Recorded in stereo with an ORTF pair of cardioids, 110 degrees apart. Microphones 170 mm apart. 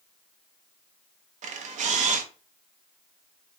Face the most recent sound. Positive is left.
turn(degrees=-45)